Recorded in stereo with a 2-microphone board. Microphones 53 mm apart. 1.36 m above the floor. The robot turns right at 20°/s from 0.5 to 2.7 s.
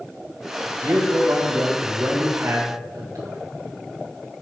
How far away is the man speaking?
About 1.5 m.